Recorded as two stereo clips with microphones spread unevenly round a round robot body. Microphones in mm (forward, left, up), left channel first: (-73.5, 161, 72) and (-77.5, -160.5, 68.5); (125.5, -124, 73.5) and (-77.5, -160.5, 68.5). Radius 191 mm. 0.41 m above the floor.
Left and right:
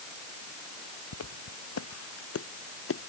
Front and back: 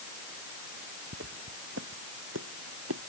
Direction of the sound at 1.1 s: 130° left.